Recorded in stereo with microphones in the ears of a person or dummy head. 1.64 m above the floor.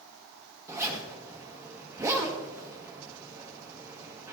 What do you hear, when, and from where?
0.7 s a zipper: 15° right (ahead or behind), 1.6 m